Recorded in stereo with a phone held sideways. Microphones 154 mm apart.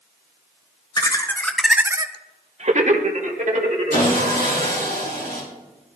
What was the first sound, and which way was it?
Laughter, 30° left (ahead or behind).